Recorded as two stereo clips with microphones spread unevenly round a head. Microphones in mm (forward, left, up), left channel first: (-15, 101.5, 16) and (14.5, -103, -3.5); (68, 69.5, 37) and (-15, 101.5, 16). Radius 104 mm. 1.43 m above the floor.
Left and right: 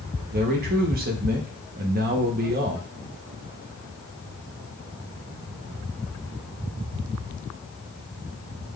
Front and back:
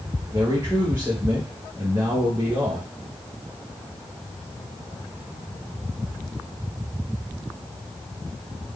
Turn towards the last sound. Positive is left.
turn(degrees=-130)